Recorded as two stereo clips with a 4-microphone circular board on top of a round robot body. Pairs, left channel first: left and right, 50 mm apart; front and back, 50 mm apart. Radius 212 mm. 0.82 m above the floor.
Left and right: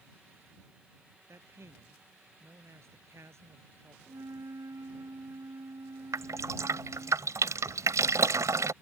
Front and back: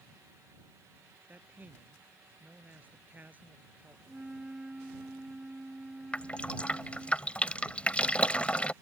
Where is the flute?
100° right.